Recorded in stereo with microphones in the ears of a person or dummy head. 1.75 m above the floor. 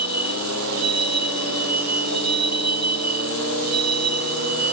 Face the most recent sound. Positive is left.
turn(degrees=-90)